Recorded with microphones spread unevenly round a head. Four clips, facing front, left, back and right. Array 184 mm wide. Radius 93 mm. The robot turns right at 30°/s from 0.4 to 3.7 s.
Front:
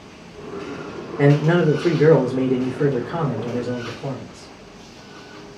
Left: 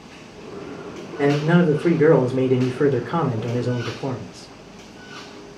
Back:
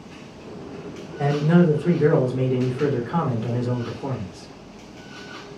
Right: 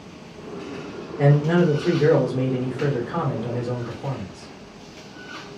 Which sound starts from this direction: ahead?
A man speaking, at 1.2 s.